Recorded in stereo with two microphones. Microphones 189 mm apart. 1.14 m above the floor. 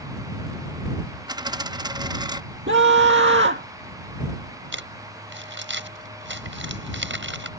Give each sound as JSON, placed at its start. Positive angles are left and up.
{"t": 1.3, "sound": "a dropped coin", "side_deg": -20}
{"t": 2.7, "sound": "a scream", "side_deg": -75}
{"t": 4.7, "sound": "crumpling", "side_deg": -85}